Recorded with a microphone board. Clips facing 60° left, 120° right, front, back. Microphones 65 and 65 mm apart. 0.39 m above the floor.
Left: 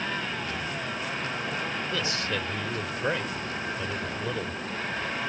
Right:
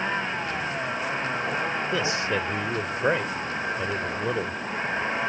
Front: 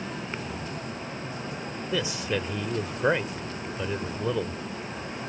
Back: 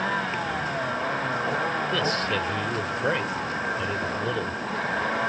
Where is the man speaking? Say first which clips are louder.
Right 5 dB, back 4 dB; 70° right.